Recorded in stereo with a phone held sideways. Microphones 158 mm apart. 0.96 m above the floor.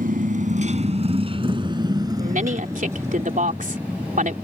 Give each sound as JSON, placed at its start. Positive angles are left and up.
{"t": 0.0, "sound": "a motorcycle", "side_deg": -65}
{"t": 2.2, "sound": "a woman speaking", "side_deg": -55}